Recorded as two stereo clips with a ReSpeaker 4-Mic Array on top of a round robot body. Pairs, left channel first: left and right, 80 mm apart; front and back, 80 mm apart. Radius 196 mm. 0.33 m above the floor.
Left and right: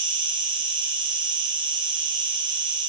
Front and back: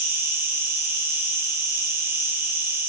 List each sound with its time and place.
0.0 s an insect: 115° right, 1.1 m